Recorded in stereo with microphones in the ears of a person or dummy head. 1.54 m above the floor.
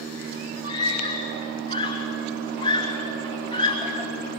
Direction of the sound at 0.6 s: 30° left (ahead or behind).